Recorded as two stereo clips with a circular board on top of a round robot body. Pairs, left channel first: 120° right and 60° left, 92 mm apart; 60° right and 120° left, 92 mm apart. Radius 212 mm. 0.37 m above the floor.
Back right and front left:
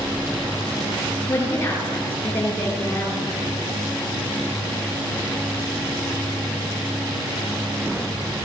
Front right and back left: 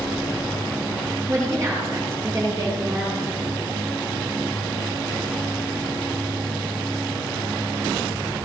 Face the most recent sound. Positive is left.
turn(degrees=170)